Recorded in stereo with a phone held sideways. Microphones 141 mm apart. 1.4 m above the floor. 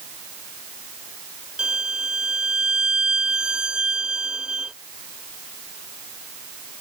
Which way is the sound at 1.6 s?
5° right (ahead or behind).